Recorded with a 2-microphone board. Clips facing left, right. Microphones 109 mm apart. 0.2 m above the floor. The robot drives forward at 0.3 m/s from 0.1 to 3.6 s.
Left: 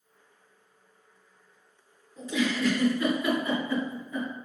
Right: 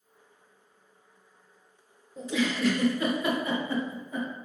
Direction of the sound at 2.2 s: 35° right (ahead or behind).